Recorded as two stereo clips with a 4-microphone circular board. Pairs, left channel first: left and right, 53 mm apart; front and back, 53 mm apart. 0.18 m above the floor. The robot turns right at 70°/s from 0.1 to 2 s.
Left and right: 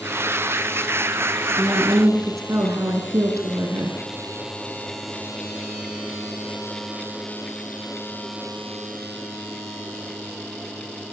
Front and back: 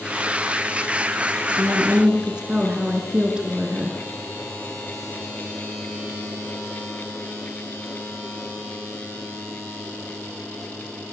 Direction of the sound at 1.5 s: 140° right.